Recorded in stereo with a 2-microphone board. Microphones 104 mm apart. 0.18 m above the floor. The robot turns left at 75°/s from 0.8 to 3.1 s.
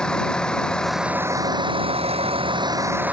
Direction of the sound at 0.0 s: 10° left.